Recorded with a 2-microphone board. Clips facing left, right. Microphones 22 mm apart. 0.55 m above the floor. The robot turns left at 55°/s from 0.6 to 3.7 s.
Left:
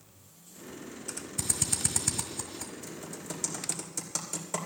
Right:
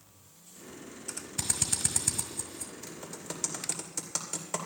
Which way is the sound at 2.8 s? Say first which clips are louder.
Left 1 dB; 45° right (ahead or behind).